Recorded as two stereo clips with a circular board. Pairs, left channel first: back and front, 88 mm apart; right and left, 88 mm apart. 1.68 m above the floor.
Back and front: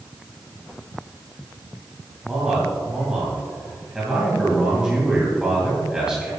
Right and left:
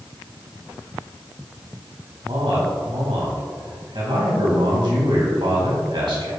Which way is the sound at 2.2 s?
80° left.